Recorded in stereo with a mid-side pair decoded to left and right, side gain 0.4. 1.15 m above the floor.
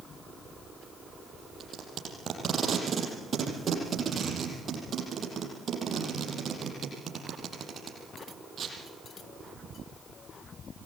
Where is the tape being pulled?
50° right, 8 m.